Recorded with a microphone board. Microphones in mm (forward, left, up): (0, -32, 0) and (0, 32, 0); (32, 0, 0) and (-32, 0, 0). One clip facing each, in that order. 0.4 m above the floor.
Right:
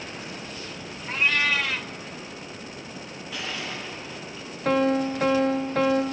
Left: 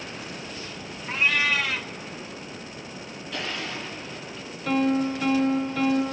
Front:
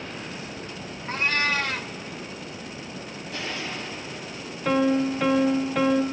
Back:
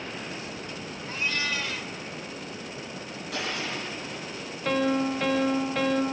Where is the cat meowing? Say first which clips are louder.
Even, front 6 dB; straight ahead, 0.6 m.